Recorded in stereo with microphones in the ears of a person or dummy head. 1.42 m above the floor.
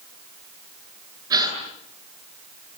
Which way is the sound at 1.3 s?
15° right (ahead or behind).